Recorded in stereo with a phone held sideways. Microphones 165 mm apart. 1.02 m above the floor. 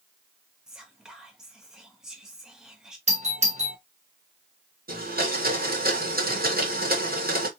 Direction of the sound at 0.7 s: 5° right (ahead or behind).